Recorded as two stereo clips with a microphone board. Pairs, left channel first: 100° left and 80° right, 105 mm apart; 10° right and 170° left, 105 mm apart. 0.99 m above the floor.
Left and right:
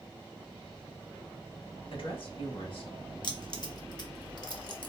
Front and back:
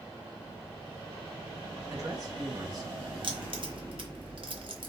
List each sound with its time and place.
1.9 s a woman speaking: 120° left, 1.1 m
3.2 s keys jangling: 140° left, 0.6 m